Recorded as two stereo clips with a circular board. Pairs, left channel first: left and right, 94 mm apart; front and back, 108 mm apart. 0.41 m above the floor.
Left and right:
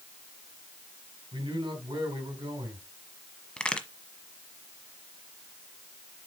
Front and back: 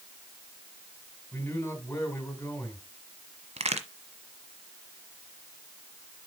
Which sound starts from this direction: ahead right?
A man speaking, at 1.3 s.